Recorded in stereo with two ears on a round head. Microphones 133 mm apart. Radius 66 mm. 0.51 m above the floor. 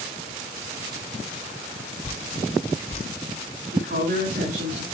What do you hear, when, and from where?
2.0 s dripping: 45° left (ahead or behind), 4 m
3.7 s a woman speaking: 65° right (ahead or behind), 5 m